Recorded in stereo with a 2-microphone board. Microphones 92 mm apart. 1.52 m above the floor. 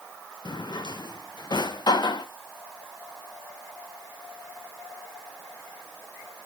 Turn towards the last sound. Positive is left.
turn(degrees=55)  # may be behind; listen again after turning